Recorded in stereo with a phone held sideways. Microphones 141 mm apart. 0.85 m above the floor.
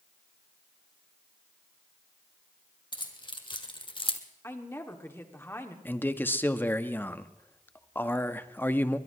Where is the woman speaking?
15° left (ahead or behind), 1.9 m.